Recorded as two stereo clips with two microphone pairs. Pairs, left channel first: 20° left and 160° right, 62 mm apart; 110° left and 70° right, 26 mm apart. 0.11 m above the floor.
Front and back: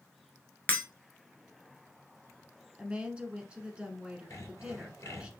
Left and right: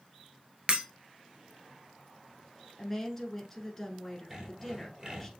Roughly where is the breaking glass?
Ahead right.